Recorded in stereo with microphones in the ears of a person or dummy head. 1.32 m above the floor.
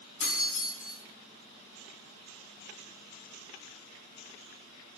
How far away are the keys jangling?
About 1.8 m.